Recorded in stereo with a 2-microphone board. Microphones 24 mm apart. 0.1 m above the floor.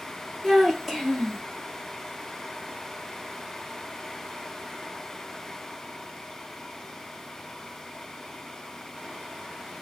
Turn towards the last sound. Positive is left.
turn(degrees=0)  # may be behind; listen again after turning